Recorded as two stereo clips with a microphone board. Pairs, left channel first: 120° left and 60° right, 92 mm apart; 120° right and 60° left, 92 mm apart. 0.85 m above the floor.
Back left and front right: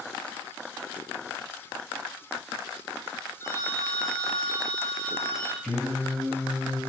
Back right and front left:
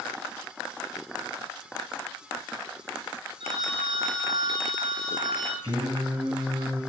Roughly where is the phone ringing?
Ahead left.